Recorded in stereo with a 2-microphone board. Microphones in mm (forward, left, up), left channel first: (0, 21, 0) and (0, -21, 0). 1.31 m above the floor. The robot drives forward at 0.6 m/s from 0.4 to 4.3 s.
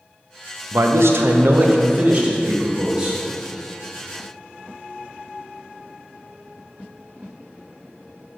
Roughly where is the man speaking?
Right.